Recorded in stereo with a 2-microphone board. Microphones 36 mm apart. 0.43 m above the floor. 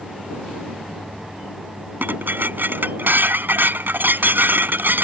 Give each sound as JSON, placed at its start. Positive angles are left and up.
{"t": 2.0, "sound": "dishes clattering", "side_deg": -75}